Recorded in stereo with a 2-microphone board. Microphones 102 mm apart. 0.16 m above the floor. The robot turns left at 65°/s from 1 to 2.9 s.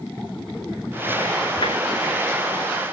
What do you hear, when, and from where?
1.6 s tapping: 55° left (ahead or behind), 6 m; by 1.8 s 45° left (ahead or behind), 6 m